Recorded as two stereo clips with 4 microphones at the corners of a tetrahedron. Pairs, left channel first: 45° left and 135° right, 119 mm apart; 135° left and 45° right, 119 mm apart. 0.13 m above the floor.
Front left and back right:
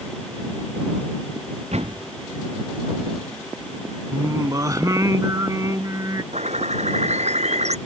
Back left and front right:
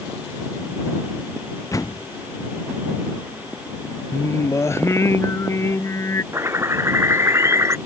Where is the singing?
175° right.